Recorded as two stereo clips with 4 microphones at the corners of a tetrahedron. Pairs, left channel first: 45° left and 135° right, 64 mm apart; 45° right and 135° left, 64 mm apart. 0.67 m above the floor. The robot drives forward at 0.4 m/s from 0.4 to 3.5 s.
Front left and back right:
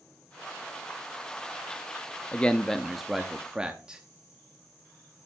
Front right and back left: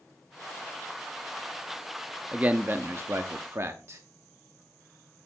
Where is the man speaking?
90° left, 0.5 m; by 4.0 s 150° left, 0.7 m.